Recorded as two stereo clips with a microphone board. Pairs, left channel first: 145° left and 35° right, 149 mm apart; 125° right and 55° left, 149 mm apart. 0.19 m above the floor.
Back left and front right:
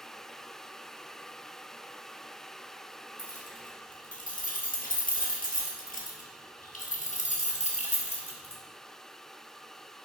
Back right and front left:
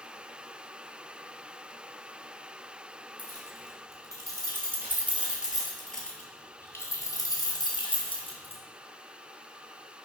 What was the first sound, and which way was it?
Keys jangling, 115° left.